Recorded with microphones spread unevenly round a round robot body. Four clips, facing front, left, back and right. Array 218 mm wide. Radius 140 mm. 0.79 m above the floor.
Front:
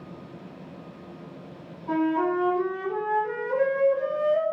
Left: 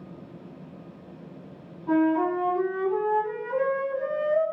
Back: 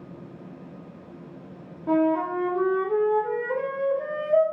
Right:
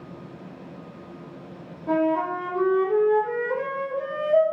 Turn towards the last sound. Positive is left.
turn(degrees=-165)